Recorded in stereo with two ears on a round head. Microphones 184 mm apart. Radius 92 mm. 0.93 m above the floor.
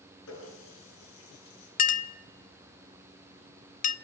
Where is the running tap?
80° left, 8 m.